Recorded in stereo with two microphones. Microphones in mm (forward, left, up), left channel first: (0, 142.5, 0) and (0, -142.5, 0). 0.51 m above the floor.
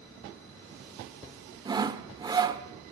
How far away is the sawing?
About 1.6 m.